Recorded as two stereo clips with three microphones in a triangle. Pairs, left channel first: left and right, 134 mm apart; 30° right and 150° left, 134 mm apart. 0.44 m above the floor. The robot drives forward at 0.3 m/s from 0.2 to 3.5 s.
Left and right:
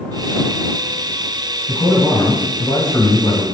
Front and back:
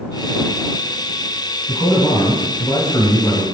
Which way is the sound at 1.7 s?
20° left.